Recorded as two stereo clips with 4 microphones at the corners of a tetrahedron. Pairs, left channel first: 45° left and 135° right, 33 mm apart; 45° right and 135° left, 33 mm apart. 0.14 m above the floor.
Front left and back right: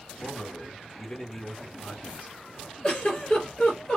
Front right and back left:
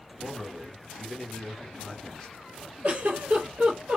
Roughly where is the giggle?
Left.